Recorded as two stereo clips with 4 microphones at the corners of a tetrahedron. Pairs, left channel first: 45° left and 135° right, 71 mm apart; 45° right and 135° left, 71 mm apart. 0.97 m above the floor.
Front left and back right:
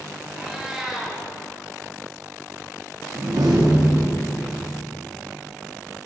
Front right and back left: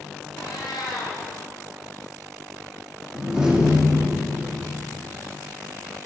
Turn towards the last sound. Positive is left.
turn(degrees=-150)